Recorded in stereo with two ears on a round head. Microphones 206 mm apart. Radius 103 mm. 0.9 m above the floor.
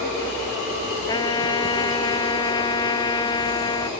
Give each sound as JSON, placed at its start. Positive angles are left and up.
{"t": 1.1, "sound": "a trumpet", "side_deg": 20}